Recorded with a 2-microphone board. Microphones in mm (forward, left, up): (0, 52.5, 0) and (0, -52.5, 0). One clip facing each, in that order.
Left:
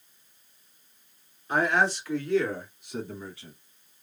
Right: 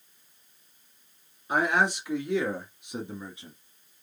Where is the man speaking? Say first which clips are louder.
Left 1 dB; 15° right (ahead or behind), 2 m; by 3.5 s 20° right (ahead or behind), 1.6 m.